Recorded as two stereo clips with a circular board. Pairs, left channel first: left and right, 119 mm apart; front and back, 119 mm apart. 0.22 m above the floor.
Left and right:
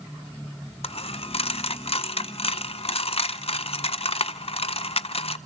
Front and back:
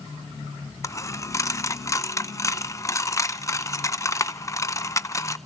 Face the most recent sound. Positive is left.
turn(degrees=60)